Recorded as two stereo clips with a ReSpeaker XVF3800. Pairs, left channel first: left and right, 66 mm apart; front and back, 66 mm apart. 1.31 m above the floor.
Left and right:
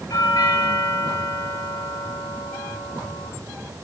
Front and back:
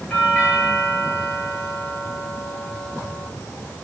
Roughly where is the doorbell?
Left.